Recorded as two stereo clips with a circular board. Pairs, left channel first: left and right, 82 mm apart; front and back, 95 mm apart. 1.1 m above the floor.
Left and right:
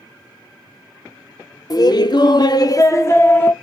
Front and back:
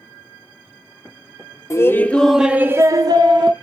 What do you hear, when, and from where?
1.7 s laughter: 55° left, 0.7 m; by 3.5 s 155° left, 0.8 m